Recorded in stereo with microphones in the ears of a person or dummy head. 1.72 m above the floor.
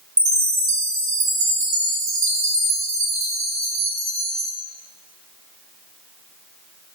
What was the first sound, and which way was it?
A chime, 45° right (ahead or behind).